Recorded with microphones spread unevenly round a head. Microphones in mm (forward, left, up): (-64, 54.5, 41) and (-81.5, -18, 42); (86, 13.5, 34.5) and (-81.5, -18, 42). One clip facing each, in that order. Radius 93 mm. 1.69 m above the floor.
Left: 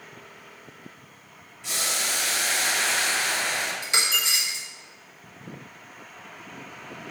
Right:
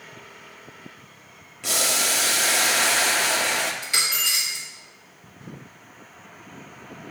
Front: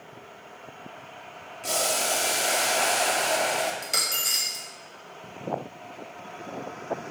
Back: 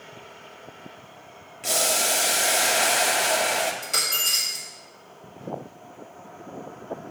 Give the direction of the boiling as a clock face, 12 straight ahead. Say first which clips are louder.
Right 5 dB, back 1 dB; 3 o'clock.